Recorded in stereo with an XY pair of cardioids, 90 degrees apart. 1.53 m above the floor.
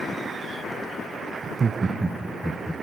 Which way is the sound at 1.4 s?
60° right.